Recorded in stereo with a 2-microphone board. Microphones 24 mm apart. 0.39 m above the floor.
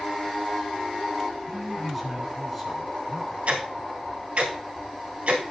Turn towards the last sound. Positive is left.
turn(degrees=-60)  # may be behind; listen again after turning